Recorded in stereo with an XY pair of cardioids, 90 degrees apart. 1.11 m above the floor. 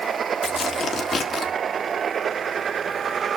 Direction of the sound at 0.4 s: 60° left.